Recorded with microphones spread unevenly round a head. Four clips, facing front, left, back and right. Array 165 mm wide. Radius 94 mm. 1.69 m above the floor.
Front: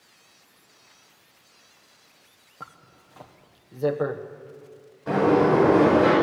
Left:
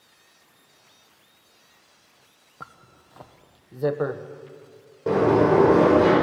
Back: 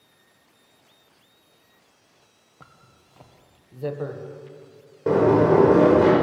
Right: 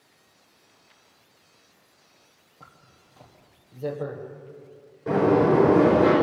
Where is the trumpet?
No trumpet in this recording.